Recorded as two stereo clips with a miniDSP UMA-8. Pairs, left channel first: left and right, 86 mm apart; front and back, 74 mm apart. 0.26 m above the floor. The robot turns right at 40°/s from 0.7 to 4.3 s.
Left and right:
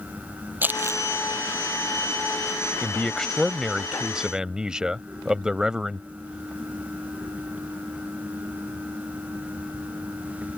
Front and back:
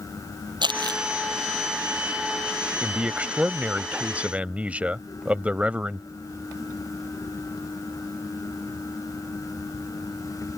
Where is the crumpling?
160° right; by 1.0 s 145° right.